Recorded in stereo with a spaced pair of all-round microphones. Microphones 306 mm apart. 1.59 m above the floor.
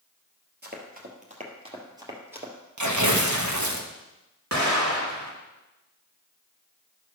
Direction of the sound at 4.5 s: 65° right (ahead or behind).